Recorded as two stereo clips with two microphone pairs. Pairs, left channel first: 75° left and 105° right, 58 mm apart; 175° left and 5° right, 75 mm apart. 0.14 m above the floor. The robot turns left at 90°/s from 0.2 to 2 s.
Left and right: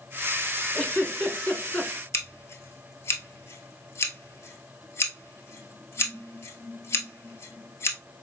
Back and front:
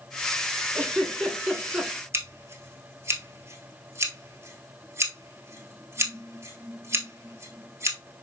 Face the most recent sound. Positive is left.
turn(degrees=40)